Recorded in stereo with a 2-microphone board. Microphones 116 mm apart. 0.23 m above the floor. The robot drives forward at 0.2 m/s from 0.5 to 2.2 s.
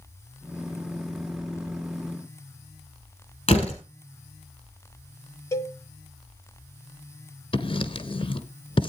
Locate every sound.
3.5 s a door slam: 55° left (ahead or behind), 4 m
5.5 s a cowbell: 25° left (ahead or behind), 0.9 m
7.5 s writing: 45° left (ahead or behind), 1.1 m